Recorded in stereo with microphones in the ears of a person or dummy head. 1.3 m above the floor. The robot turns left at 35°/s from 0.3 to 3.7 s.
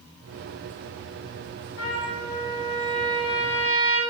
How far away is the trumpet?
About 0.8 m.